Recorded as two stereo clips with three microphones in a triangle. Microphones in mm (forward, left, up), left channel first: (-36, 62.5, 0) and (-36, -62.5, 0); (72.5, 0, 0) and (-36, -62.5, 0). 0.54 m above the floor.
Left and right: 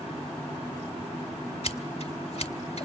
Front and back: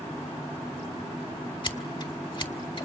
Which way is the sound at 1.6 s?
70° left.